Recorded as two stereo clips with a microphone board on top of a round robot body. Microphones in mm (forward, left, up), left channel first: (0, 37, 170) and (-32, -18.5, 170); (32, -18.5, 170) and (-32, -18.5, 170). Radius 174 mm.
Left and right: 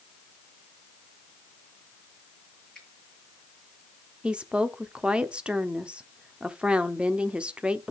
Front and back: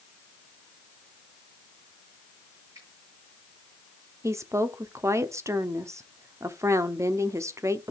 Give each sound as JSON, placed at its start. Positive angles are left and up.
{"t": 2.8, "sound": "a finger snap", "azimuth_deg": 140, "distance_m": 9.0}
{"t": 4.2, "sound": "a woman speaking", "azimuth_deg": 170, "distance_m": 1.3}